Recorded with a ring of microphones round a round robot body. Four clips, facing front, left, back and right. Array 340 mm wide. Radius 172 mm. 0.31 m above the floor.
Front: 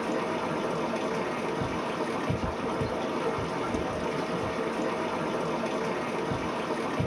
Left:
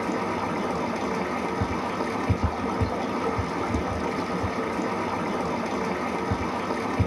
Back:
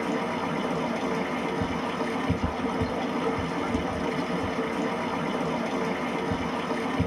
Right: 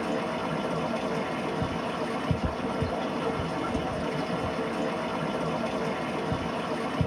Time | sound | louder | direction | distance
0.0 | running water | left 2 dB, back 1 dB | 90° left | 1.1 m